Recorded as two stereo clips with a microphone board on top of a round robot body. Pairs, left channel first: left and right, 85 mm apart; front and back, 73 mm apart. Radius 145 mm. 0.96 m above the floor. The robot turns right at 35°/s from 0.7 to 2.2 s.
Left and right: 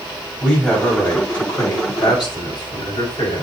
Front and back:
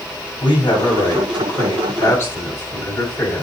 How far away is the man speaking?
About 6 m.